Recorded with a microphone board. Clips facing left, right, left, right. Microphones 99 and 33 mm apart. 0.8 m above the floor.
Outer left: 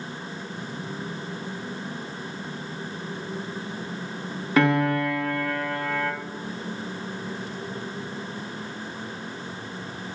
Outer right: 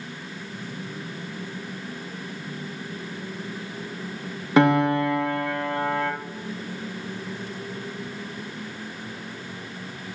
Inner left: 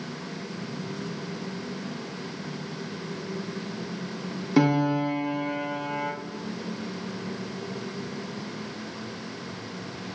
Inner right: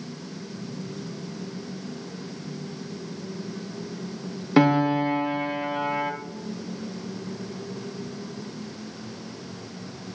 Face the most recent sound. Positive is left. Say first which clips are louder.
# outer right 3 dB, inner right 3 dB
turn(degrees=-20)  # may be behind; listen again after turning